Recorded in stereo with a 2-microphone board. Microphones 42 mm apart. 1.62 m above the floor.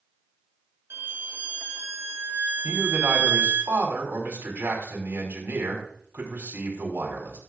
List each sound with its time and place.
0.9 s a violin: 60° right (ahead or behind), 1.0 m
2.6 s a man speaking: 75° right (ahead or behind), 5 m